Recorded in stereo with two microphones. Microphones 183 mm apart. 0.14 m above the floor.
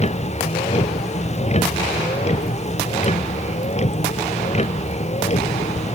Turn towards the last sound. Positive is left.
turn(degrees=35)  # may be behind; listen again after turning